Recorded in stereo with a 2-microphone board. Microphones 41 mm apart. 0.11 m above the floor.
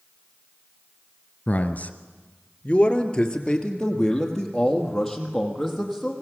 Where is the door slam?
I don't hear a door slam.